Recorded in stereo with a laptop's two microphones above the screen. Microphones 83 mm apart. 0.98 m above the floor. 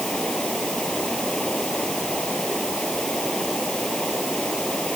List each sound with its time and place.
0.0 s running water: 10° left (ahead or behind)